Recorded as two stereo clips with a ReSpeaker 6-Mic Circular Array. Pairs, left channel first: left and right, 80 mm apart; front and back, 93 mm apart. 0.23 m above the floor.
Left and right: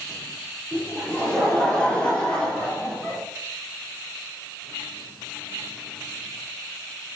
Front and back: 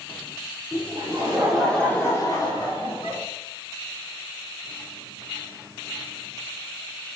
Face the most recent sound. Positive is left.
turn(degrees=15)